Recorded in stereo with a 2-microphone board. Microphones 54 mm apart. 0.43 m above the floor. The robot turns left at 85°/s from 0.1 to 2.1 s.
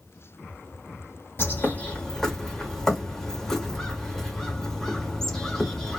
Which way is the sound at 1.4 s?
75° left.